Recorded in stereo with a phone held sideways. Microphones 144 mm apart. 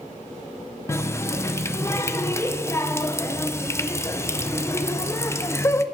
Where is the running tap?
20° left (ahead or behind), 0.5 m.